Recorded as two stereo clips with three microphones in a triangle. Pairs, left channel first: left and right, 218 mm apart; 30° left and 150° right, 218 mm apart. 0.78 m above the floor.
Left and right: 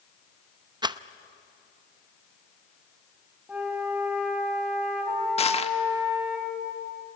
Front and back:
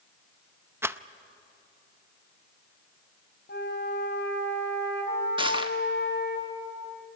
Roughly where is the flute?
Ahead.